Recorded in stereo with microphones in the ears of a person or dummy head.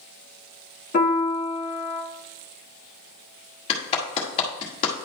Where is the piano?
35° left (ahead or behind), 2.5 m.